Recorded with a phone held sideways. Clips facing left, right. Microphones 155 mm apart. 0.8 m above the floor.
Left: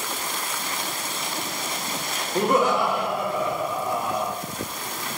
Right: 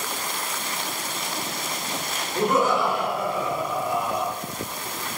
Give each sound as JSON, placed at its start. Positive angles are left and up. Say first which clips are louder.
{"t": 2.4, "sound": "laughter", "louder": "left 1 dB", "side_deg": 60, "distance_m": 1.7}